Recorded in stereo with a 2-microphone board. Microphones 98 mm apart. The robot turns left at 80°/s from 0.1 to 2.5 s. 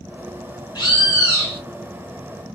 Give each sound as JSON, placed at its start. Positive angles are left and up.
{"t": 0.8, "sound": "a bird", "azimuth_deg": 95, "distance_m": 1.5}